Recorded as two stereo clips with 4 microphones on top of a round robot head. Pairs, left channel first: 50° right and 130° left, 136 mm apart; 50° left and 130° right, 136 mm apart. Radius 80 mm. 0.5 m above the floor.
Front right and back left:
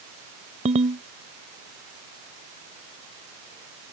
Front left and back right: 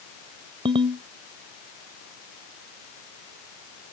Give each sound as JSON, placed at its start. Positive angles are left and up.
{"t": 0.7, "sound": "a ringtone", "azimuth_deg": 175}